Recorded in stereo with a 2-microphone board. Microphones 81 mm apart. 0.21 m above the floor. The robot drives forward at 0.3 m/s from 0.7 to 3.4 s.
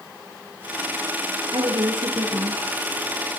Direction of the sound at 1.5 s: 75° right (ahead or behind).